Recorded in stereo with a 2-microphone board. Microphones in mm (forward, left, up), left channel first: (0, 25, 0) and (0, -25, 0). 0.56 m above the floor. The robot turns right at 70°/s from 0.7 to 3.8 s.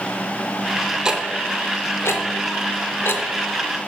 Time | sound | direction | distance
1.1 | ticking | 15° right (ahead or behind) | 0.7 m